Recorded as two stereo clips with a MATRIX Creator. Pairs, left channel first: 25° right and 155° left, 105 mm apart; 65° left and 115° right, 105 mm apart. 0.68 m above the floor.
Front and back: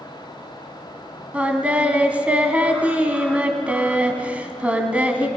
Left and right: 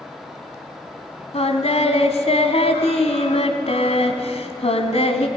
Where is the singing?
80° left, 1.8 m.